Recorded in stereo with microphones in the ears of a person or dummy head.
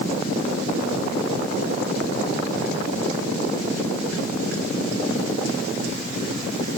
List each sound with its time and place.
Only background noise.